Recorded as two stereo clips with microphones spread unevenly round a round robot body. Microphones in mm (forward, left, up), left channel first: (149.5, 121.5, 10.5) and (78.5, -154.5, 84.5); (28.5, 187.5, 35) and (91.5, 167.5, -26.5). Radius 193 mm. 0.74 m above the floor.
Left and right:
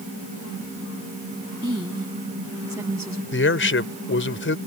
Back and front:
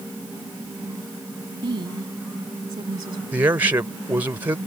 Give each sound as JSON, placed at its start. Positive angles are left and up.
{"t": 1.6, "sound": "a woman speaking", "azimuth_deg": -30}
{"t": 3.3, "sound": "a man speaking", "azimuth_deg": 30}